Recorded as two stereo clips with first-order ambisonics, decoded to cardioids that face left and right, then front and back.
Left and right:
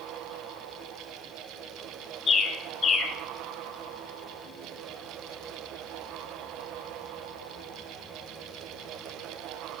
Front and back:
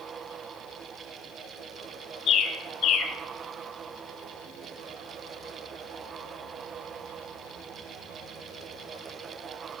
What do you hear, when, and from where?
2.3 s a bird: 35° left, 1.2 m